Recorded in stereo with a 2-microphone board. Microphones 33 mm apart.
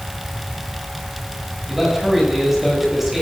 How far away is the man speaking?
About 7 m.